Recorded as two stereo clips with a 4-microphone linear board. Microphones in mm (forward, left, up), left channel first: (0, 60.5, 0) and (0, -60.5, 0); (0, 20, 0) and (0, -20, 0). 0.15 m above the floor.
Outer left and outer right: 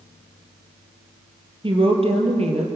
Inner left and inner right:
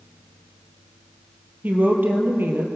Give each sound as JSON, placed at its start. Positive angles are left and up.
{"t": 1.6, "sound": "a woman speaking", "side_deg": -45, "distance_m": 4.0}